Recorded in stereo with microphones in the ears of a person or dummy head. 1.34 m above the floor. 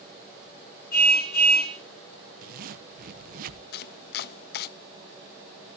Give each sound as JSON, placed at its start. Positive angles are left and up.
{"t": 0.9, "sound": "a car horn", "side_deg": 50, "distance_m": 8.0}
{"t": 2.4, "sound": "a zipper", "side_deg": -50, "distance_m": 1.3}
{"t": 3.7, "sound": "chopping", "side_deg": 60, "distance_m": 0.6}